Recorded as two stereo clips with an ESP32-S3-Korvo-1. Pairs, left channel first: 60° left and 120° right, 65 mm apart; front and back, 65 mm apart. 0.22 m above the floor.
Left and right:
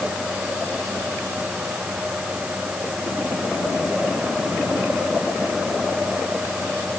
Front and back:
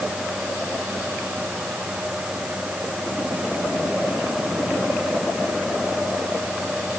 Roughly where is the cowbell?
No cowbell in this recording.